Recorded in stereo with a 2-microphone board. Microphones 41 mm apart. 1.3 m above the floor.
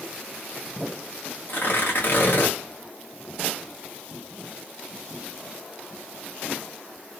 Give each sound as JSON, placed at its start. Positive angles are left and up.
{"t": 1.5, "sound": "tearing paper", "side_deg": 55, "distance_m": 1.1}